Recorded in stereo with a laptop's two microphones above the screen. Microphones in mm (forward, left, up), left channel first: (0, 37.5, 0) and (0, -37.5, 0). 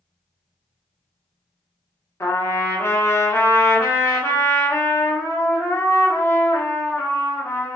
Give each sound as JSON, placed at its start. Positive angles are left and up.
{"t": 2.2, "sound": "a trumpet", "side_deg": 35, "distance_m": 0.8}